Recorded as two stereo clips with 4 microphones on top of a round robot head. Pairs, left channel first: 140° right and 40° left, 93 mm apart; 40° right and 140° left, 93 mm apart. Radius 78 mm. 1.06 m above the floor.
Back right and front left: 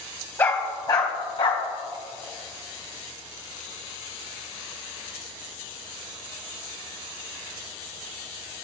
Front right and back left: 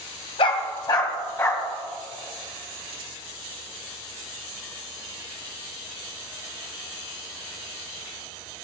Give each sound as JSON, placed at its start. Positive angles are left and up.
{"t": 0.4, "sound": "a dog barking", "azimuth_deg": -75, "distance_m": 1.5}